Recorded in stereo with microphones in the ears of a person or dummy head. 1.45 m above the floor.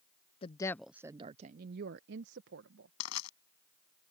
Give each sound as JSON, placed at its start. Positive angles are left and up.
{"t": 0.4, "sound": "a woman speaking", "side_deg": 30}
{"t": 3.0, "sound": "crushing", "side_deg": 85}